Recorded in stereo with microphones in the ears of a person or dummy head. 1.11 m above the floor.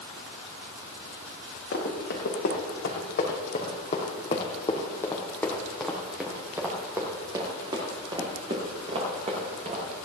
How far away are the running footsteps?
About 4 m.